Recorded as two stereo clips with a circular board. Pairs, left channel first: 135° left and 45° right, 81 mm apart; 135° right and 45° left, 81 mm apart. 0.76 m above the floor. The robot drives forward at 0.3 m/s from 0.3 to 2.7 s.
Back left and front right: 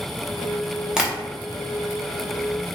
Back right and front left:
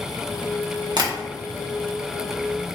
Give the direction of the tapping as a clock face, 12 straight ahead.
11 o'clock.